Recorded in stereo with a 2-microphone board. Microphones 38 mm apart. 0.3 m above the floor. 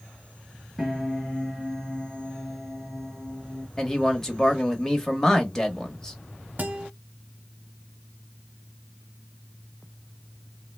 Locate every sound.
0.8 s a piano: centre (ahead or behind), 2.5 m
3.8 s a man speaking: 10° left (ahead or behind), 0.9 m
6.6 s a guitar: 45° right (ahead or behind), 0.9 m